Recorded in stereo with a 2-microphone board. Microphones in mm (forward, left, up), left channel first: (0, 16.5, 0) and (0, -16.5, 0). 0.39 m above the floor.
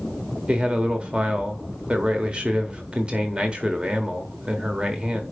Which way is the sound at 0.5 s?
30° right (ahead or behind).